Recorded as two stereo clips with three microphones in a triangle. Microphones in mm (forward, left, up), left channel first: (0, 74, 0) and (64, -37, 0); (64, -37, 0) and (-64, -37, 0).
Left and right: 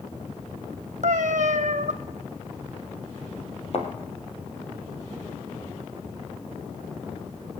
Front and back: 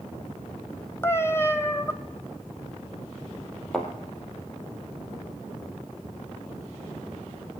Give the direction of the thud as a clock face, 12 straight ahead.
9 o'clock.